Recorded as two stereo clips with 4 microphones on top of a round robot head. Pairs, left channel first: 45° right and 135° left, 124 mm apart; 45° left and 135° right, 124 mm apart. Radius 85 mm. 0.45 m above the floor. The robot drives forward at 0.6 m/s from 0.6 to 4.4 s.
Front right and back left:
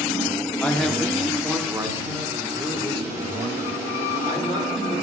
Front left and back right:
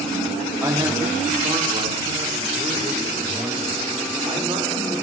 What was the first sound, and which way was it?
A man speaking, 100° right.